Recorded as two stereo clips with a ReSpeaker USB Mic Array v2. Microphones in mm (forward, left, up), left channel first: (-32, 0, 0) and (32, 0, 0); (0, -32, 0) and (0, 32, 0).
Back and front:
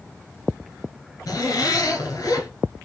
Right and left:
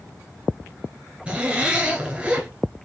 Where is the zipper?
165° left, 2.0 m.